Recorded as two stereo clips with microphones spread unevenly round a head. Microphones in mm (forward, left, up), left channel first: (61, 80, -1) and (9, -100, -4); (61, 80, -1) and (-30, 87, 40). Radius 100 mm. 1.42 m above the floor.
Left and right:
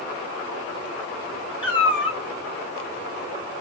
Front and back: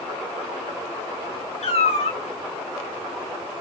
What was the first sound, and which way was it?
A cat meowing, 10° left.